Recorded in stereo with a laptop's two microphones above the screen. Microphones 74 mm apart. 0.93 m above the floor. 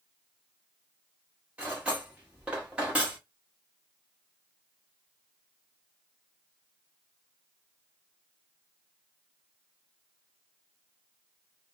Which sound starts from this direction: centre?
Cutlery clinking, at 1.6 s.